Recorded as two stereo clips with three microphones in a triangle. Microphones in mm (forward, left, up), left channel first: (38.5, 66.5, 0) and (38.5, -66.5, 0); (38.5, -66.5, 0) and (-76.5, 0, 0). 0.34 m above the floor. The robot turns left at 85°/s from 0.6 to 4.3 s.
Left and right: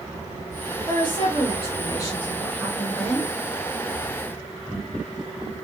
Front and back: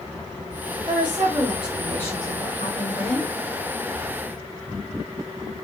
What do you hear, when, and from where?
0.9 s a woman speaking: 135° left, 1.6 m; by 3.3 s 75° right, 1.6 m